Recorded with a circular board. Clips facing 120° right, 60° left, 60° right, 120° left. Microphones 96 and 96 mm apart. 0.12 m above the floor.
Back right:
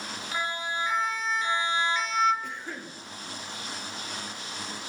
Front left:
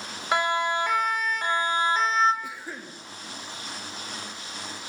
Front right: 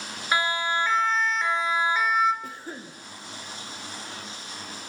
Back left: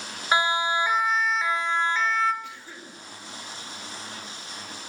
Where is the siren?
55° left, 2.5 m; by 2.3 s 10° left, 2 m.